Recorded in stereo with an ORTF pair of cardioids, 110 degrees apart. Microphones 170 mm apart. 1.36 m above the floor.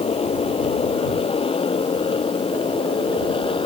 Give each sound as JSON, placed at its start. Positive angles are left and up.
{"t": 0.0, "sound": "a motorcycle", "azimuth_deg": 35}